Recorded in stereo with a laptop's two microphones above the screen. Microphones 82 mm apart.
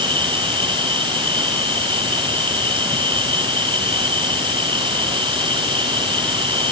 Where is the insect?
85° right.